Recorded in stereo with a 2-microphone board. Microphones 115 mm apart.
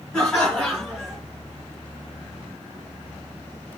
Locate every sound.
0.1 s laughter: 5° left (ahead or behind), 2.5 m; by 1.2 s centre (ahead or behind), 3 m